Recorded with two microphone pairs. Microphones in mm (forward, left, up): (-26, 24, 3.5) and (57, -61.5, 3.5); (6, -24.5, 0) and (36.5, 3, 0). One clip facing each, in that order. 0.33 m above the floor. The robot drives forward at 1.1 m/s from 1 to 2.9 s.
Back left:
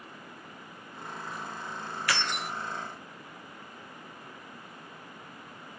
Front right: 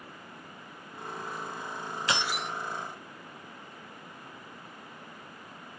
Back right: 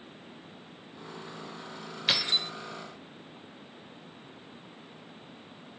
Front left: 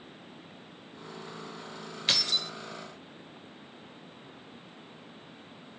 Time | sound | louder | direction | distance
2.1 | keys jangling | front right 1 dB, back right 1 dB | 70° right | 0.6 m